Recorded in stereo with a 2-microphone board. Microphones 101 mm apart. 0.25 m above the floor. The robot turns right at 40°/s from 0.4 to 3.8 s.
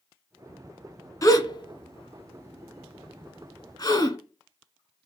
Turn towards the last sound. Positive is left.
turn(degrees=40)  # may be behind; listen again after turning